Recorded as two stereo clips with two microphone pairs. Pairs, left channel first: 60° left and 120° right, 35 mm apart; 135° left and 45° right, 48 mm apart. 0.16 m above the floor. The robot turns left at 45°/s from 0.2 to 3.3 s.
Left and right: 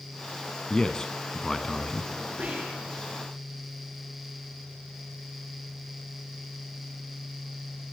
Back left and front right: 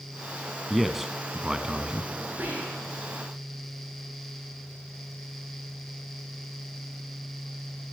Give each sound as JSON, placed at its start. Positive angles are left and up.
{"t": 0.7, "sound": "a man speaking", "azimuth_deg": 45, "distance_m": 1.0}
{"t": 2.4, "sound": "whispering", "azimuth_deg": -90, "distance_m": 8.0}